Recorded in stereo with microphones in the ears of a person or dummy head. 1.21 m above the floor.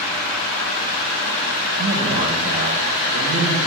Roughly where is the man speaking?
Right.